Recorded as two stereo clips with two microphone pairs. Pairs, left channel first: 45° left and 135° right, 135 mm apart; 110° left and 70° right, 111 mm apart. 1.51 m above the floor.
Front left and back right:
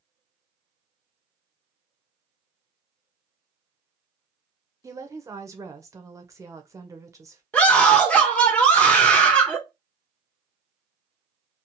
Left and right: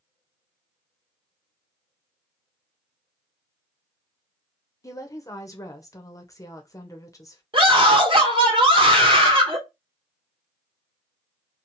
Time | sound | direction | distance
4.8 | a woman speaking | 165° left | 0.7 m
7.5 | a scream | 35° right | 1.3 m